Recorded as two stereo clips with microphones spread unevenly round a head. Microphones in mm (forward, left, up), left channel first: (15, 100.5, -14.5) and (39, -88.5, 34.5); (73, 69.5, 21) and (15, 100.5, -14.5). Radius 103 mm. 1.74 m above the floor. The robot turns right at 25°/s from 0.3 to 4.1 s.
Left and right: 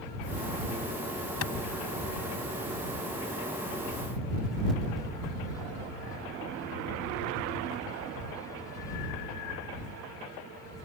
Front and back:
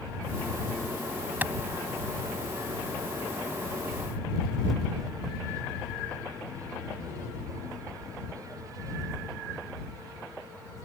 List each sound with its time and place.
1.4 s a clap: 80° left; by 1.5 s 85° left